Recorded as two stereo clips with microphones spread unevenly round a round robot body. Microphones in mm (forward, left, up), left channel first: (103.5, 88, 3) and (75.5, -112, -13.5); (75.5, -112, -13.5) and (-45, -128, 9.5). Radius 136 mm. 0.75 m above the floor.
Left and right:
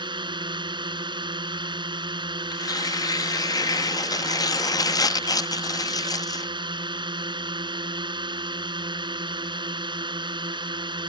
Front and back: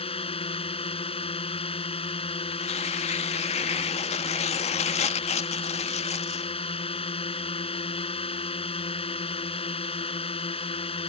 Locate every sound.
0.0 s a drone: 30° right
2.5 s tearing paper: 10° left